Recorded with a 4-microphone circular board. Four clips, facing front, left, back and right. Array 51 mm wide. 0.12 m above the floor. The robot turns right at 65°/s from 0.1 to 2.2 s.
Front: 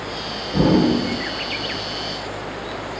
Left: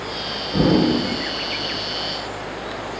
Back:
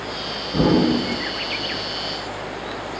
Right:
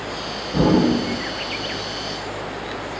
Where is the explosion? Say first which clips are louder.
Even, front 1 dB; 80° left, 1.8 m; by 1.1 s 120° left, 1.8 m.